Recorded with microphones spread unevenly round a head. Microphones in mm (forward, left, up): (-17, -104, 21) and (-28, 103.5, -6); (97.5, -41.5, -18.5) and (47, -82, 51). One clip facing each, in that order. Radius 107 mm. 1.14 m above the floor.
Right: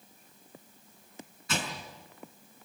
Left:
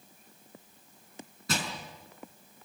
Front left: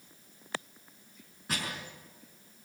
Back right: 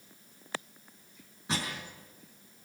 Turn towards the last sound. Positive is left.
turn(degrees=150)